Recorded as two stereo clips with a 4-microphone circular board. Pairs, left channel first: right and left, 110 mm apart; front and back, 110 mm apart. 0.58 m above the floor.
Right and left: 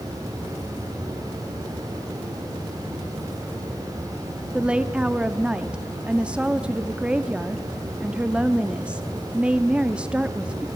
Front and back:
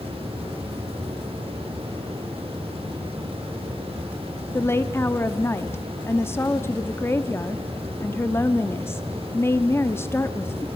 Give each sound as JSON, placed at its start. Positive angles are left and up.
{"t": 0.0, "sound": "running water", "azimuth_deg": 150, "distance_m": 7.5}
{"t": 4.5, "sound": "a woman speaking", "azimuth_deg": 25, "distance_m": 0.8}